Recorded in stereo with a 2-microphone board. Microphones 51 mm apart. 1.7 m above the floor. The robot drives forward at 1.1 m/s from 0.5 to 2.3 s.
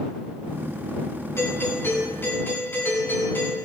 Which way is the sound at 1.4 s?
55° left (ahead or behind).